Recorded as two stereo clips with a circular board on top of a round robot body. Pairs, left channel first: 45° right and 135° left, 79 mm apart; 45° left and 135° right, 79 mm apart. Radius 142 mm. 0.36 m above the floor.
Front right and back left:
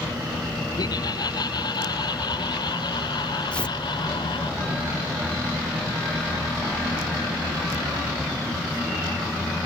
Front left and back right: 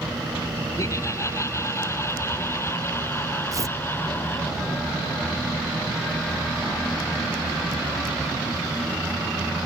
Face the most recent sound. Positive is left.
turn(degrees=-115)